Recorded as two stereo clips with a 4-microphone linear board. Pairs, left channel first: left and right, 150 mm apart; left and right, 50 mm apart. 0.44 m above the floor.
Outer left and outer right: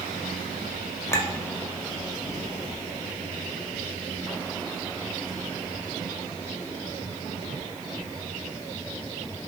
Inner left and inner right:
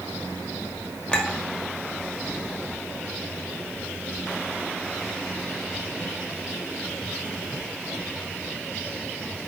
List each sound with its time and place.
1.1 s a clink: 20° left (ahead or behind), 1.3 m